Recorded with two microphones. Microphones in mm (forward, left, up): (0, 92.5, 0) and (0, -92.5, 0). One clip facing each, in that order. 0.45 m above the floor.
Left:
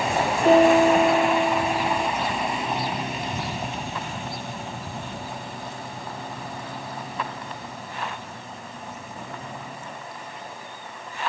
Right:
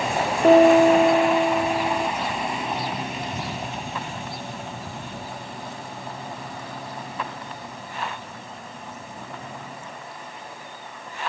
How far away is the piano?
About 1.0 m.